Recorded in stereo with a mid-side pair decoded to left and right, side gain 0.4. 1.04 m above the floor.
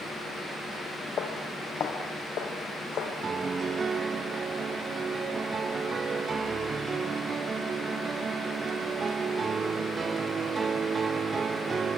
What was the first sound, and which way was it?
Footsteps, 65° left.